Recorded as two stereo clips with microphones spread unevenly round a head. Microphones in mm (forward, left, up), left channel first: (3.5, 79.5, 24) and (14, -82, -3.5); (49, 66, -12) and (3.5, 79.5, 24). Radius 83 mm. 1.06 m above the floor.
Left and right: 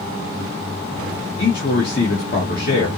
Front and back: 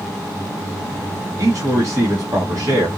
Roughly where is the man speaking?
Behind left.